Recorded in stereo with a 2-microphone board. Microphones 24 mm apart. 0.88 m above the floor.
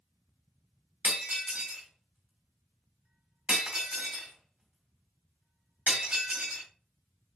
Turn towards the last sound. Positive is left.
turn(degrees=-75)  # may be behind; listen again after turning